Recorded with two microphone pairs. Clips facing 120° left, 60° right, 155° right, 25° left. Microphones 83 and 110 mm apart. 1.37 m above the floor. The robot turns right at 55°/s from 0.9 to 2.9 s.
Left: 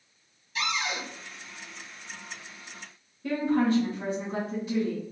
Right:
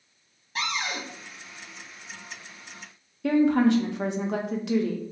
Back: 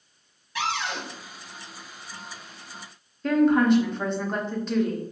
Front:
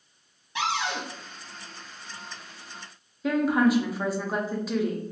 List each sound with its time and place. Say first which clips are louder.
0.6 s a cupboard door: even, front 1 dB; 35° right, 0.8 m; by 1.0 s 25° right, 0.8 m
3.2 s a woman speaking: right 5 dB, back 3 dB; 55° right, 0.6 m